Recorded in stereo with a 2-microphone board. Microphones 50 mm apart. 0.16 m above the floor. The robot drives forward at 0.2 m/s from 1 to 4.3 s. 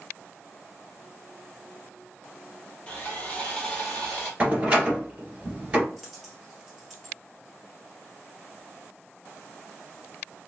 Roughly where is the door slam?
Right.